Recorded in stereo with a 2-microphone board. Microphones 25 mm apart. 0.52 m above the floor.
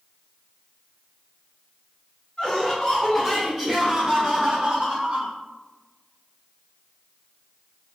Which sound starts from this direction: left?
Laughter, at 2.4 s.